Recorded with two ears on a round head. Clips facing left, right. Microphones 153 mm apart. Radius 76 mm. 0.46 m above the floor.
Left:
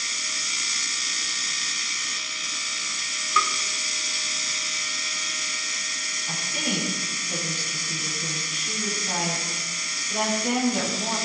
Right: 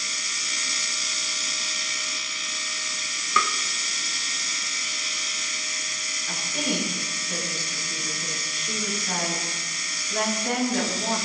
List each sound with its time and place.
3.4 s tapping: 50° right (ahead or behind), 0.7 m
6.3 s a woman speaking: 10° left (ahead or behind), 6.5 m